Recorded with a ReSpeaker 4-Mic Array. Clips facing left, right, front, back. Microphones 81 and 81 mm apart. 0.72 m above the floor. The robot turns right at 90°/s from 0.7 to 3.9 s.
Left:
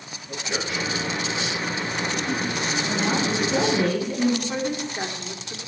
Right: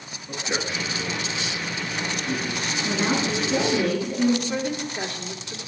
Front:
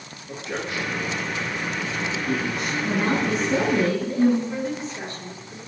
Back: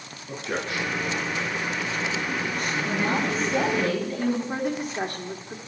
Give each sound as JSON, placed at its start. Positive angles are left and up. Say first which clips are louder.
{"t": 0.3, "sound": "a man speaking", "louder": "even, even", "azimuth_deg": -155, "distance_m": 8.0}
{"t": 2.9, "sound": "a woman speaking", "louder": "right 1 dB, front 4 dB", "azimuth_deg": -40, "distance_m": 9.0}
{"t": 4.5, "sound": "a woman speaking", "louder": "even, back 1 dB", "azimuth_deg": 155, "distance_m": 2.0}